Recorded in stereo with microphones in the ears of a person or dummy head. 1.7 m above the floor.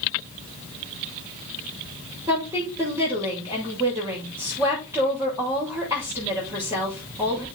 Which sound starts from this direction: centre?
A woman speaking, at 2.3 s.